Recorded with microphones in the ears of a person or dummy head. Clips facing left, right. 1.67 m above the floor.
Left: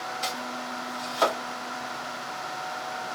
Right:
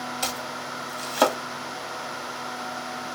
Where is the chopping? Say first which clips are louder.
Right 1 dB; 60° right (ahead or behind), 0.9 m.